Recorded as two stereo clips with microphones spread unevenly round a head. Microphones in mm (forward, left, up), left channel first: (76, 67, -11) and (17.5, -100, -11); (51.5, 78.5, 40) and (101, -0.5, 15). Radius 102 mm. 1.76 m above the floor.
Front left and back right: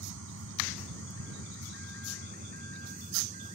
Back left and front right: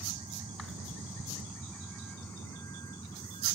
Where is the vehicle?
125° right; by 3.5 s 170° right.